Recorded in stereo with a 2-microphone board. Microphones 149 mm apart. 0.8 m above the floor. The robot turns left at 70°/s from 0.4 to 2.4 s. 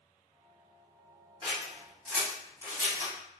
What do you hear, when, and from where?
1.4 s scissors: 30° right (ahead or behind), 1.5 m; by 3.1 s 20° left (ahead or behind), 1.5 m